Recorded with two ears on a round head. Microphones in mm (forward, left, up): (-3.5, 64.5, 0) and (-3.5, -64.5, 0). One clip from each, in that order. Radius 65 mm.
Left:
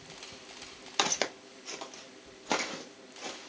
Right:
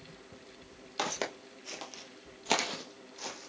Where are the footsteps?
35° left (ahead or behind), 0.9 m; by 3.5 s 65° right (ahead or behind), 1.7 m.